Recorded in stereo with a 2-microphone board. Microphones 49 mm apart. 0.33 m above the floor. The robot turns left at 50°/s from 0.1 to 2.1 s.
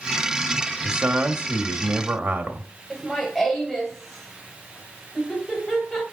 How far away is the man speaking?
About 1.0 m.